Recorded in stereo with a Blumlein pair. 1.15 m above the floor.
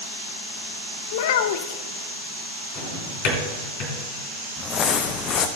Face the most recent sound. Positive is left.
turn(degrees=30)